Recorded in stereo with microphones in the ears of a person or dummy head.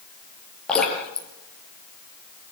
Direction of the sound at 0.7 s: 10° left (ahead or behind).